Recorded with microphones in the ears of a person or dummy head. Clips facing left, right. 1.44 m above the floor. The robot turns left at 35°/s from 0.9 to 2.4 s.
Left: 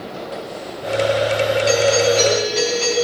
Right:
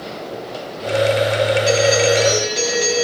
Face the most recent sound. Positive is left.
turn(degrees=-5)  # may be behind; listen again after turning